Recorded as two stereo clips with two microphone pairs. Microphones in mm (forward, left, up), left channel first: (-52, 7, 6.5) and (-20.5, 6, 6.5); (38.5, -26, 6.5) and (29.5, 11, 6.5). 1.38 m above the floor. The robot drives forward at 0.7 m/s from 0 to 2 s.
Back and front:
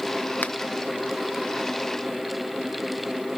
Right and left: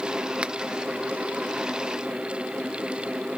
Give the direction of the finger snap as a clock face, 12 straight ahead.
7 o'clock.